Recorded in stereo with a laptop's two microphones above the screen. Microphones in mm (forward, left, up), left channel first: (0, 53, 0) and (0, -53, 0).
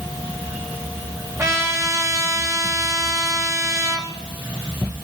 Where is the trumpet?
25° right (ahead or behind), 5 m.